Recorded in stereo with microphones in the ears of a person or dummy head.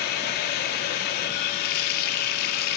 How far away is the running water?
About 1.9 m.